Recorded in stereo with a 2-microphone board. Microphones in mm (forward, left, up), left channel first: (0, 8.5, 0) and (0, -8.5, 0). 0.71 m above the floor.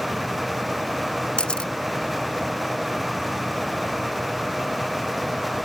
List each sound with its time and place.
1.4 s a camera shutter: 75° left (ahead or behind)